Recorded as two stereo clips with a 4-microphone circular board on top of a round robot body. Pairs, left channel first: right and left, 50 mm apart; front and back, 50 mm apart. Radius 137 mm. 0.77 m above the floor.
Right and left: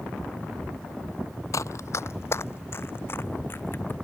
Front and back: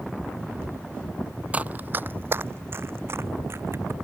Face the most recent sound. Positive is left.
turn(degrees=-140)